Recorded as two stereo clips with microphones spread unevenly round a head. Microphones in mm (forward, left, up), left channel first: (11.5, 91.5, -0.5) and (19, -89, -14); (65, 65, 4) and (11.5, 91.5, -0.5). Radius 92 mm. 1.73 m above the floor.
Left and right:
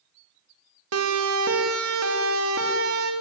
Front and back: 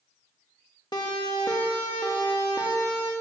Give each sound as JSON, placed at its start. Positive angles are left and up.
{"t": 0.9, "sound": "a siren", "azimuth_deg": -90, "distance_m": 3.0}